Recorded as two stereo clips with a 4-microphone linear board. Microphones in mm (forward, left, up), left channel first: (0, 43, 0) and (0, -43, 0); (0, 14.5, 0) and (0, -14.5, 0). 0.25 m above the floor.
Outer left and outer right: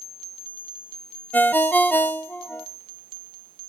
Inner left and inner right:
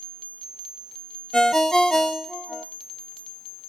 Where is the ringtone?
20° left (ahead or behind), 0.6 m.